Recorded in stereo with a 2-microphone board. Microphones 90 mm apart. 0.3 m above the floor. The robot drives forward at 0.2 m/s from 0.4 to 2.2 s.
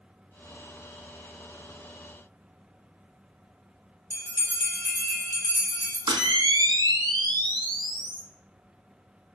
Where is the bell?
35° left (ahead or behind), 1.1 m.